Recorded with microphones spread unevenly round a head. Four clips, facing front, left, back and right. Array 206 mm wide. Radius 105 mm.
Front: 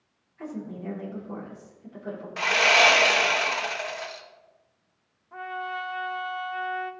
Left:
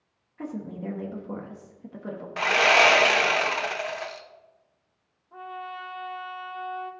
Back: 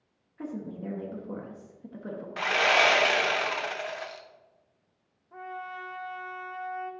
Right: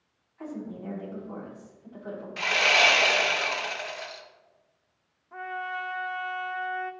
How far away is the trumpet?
About 0.6 m.